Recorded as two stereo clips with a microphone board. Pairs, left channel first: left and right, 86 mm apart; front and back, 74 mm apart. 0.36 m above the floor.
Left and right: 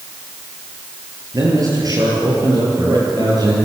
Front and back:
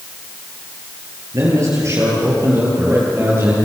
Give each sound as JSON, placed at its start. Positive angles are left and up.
{"t": 1.3, "sound": "a man speaking", "azimuth_deg": -135, "distance_m": 9.0}